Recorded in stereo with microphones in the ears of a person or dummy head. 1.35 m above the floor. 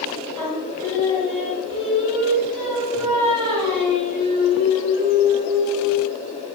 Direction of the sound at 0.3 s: 25° right (ahead or behind).